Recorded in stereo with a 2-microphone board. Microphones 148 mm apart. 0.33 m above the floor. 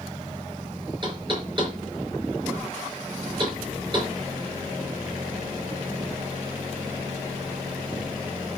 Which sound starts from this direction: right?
Knocking, at 1.0 s.